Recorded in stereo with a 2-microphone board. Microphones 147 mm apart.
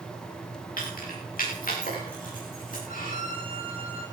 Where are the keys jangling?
70° left (ahead or behind), 8 m.